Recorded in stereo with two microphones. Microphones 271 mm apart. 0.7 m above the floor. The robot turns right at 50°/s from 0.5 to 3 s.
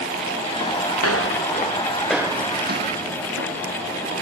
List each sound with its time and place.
1.0 s footsteps: 65° left (ahead or behind); by 3.6 s 60° right (ahead or behind)